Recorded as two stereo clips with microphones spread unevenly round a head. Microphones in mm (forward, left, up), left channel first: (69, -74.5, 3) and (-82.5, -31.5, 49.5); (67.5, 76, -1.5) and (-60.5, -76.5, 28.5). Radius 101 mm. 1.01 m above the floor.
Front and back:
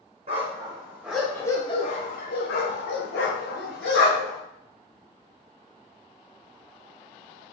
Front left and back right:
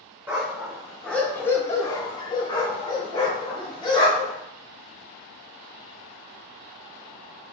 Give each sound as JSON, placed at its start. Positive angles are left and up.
{"t": 0.3, "sound": "a dog barking", "azimuth_deg": 155, "distance_m": 0.9}